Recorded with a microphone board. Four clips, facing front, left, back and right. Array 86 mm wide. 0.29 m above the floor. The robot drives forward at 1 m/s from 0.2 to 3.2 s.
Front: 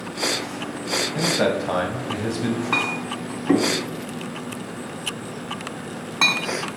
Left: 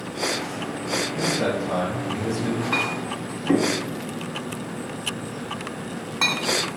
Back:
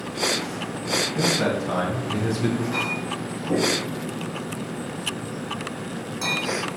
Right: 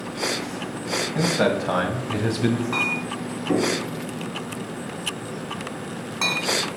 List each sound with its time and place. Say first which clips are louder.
1.1 s a man speaking: right 5 dB, front 3 dB; 40° right, 2 m; by 2.6 s 90° right, 1.7 m
2.7 s a clink: left 1 dB, front 2 dB; 20° left, 2 m; by 6.8 s 25° left, 1.6 m